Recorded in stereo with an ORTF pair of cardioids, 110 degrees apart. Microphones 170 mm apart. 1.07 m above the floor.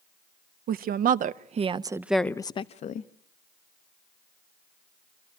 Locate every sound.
0.7 s a woman speaking: 65° right, 1.2 m; by 3.1 s 55° left, 0.8 m